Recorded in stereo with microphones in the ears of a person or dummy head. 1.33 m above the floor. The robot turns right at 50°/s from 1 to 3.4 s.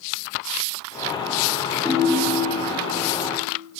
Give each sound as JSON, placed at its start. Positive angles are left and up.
{"t": 1.9, "sound": "a ringtone", "azimuth_deg": 0, "distance_m": 0.9}